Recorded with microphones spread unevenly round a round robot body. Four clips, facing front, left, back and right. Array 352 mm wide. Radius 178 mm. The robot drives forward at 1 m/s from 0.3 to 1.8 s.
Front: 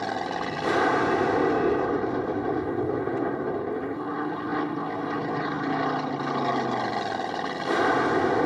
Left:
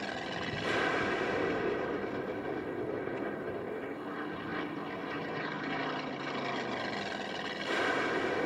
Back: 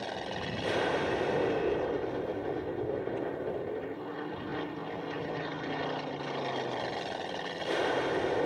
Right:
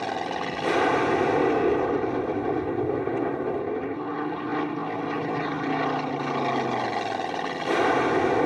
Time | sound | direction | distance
0.0 | an aircraft | 45° right | ?